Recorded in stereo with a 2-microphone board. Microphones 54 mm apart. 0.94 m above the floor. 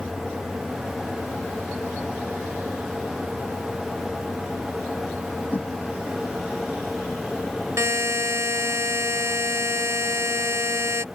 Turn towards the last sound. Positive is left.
turn(degrees=-70)  # may be behind; listen again after turning